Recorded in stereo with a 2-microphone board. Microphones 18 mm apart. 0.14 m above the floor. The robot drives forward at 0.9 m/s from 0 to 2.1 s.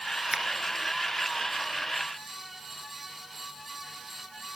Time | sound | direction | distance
0.3 | a finger snap | 50° right (ahead or behind) | 1.6 m